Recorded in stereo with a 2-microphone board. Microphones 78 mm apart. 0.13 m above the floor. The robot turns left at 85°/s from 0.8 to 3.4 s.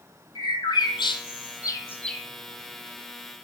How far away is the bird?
About 1.1 m.